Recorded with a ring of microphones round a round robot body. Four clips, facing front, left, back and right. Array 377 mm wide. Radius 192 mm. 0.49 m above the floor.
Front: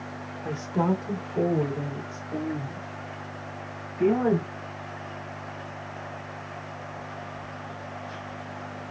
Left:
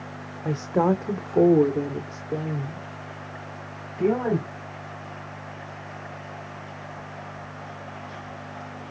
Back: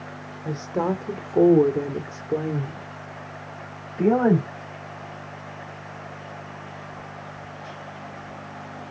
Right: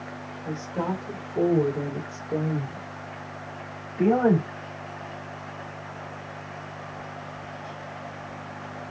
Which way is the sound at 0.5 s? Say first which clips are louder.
Left 8 dB, back 1 dB; 95° left.